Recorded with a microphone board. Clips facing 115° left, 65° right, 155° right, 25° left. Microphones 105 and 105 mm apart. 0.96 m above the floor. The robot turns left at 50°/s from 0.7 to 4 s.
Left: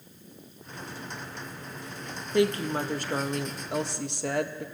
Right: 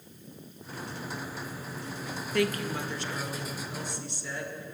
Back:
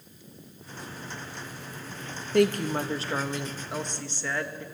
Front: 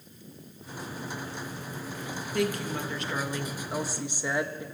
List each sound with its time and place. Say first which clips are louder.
2.3 s a woman speaking: left 4 dB, back 7 dB; straight behind, 1.0 m; by 4.7 s 100° left, 1.0 m